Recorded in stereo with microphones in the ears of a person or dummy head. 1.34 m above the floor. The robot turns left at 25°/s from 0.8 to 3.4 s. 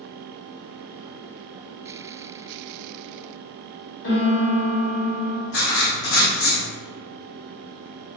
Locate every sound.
4.0 s a piano: 75° left (ahead or behind), 1.3 m
5.5 s writing: 50° left (ahead or behind), 0.8 m